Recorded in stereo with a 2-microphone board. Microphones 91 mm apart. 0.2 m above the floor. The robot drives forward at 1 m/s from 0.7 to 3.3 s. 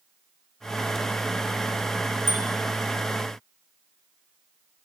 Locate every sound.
2.3 s a bicycle bell: 30° right (ahead or behind), 9.5 m